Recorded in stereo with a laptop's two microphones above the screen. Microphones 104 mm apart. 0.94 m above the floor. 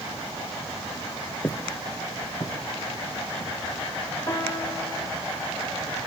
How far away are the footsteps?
About 1.0 m.